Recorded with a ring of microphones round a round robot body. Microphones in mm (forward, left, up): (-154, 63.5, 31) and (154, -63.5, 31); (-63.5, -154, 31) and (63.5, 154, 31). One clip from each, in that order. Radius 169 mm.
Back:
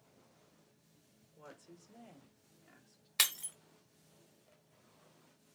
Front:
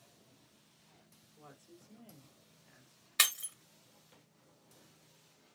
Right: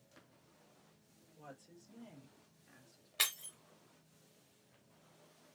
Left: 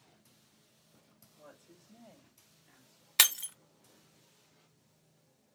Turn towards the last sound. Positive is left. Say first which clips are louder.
# front 2 dB, left 9 dB
turn(degrees=65)